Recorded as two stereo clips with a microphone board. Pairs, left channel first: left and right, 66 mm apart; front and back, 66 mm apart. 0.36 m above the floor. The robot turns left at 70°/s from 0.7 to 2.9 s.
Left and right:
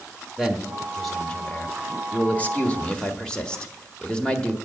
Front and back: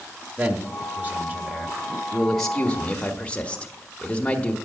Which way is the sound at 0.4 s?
170° right.